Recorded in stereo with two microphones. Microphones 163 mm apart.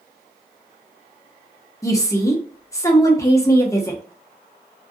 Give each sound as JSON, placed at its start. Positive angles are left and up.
{"t": 1.8, "sound": "a woman speaking", "side_deg": 20, "distance_m": 0.7}